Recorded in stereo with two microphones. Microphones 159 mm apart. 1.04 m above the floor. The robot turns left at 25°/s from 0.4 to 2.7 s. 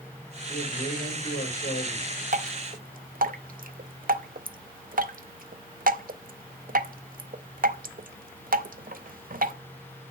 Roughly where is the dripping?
Right.